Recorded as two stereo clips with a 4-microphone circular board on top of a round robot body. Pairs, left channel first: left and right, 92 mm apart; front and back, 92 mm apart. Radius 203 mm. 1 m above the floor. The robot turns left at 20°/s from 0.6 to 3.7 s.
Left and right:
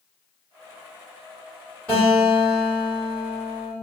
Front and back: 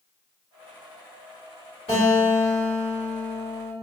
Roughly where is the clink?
I don't hear a clink.